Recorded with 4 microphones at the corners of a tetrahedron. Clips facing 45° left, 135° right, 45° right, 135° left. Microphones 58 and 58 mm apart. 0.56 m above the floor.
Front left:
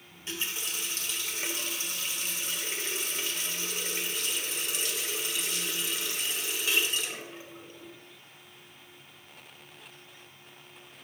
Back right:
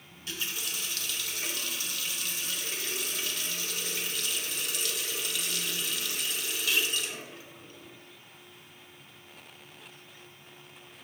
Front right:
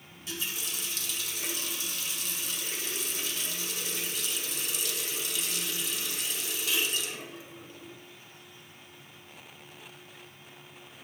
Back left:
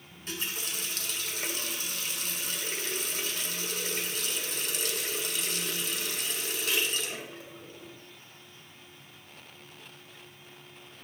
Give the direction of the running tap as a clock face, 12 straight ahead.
9 o'clock.